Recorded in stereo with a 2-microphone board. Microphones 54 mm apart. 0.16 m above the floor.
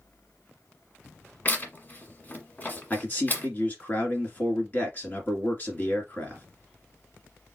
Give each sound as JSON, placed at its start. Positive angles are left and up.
{"t": 1.4, "sound": "tearing paper", "side_deg": 35, "distance_m": 1.3}
{"t": 2.9, "sound": "a man speaking", "side_deg": 35, "distance_m": 2.0}